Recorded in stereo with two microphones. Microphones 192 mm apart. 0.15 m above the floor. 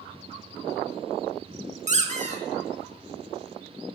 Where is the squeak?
40° right (ahead or behind), 0.5 m.